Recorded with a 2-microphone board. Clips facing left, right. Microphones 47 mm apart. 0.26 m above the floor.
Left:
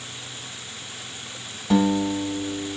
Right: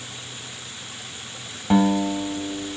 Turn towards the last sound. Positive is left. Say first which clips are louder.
# right 1 dB
turn(degrees=-25)  # may be behind; listen again after turning